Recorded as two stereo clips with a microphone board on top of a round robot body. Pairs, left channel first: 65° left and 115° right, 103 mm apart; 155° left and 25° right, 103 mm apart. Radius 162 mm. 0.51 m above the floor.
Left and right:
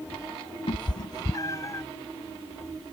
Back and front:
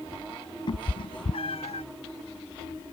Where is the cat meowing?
110° left; by 1.9 s 135° left.